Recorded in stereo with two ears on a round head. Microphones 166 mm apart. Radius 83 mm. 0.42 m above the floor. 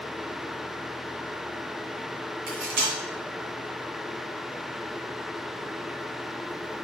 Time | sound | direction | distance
2.5 | cutlery clinking | 65° right (ahead or behind) | 2 m